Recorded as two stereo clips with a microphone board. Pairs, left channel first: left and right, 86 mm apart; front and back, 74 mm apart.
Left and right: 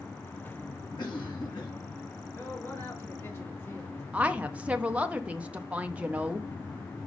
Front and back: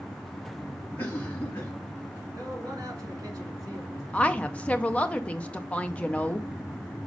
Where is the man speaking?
145° left, 3 m.